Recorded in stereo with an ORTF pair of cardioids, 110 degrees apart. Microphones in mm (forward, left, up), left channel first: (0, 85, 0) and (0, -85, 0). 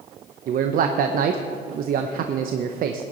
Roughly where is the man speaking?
Ahead right.